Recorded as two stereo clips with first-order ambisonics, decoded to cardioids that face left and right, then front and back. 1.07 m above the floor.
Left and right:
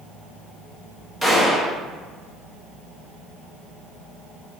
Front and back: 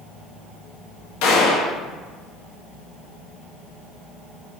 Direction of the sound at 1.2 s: 5° left.